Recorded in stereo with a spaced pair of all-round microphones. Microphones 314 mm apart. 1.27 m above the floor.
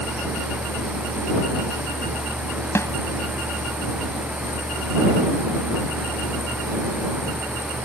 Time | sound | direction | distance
0.0 | a fan | 5° right (ahead or behind) | ?
2.8 | a snare drum | 10° left (ahead or behind) | ?